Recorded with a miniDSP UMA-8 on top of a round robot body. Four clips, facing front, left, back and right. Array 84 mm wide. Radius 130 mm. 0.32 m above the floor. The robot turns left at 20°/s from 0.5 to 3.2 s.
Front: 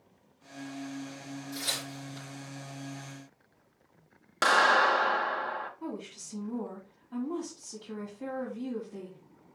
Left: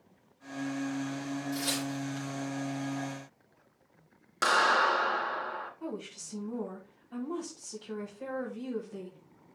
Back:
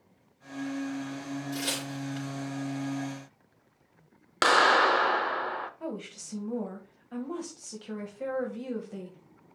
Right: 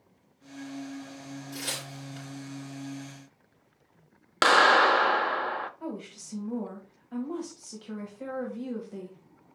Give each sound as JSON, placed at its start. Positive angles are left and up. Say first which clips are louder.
{"t": 1.5, "sound": "tearing paper", "louder": "left 6 dB, back 5 dB", "azimuth_deg": -150, "distance_m": 4.5}
{"t": 4.4, "sound": "a clap", "louder": "right 5 dB, back 1 dB", "azimuth_deg": -115, "distance_m": 0.9}
{"t": 5.8, "sound": "a woman speaking", "louder": "right 2 dB, back 2 dB", "azimuth_deg": -155, "distance_m": 2.0}